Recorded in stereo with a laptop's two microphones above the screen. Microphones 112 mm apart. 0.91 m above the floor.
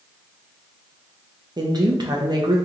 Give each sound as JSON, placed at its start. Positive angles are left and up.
{"t": 1.6, "sound": "a woman speaking", "side_deg": -40, "distance_m": 0.8}